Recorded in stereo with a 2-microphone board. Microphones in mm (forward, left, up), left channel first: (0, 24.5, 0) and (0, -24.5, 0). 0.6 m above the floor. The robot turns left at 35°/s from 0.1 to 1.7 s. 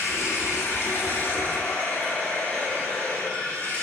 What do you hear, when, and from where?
0.0 s running water: 80° left, 1.7 m; by 3.8 s 25° left, 1.7 m